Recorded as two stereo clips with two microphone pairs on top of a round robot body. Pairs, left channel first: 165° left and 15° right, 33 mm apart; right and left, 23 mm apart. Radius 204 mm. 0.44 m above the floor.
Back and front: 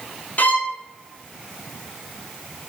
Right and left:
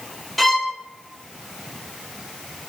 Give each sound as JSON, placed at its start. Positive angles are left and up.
{"t": 0.4, "sound": "a violin", "azimuth_deg": -170, "distance_m": 0.5}